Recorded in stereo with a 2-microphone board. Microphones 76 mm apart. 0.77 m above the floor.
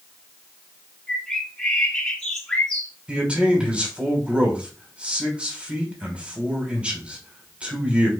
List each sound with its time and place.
1.1 s a bird: 10° left (ahead or behind), 2.5 m
3.1 s a man speaking: 15° right (ahead or behind), 3 m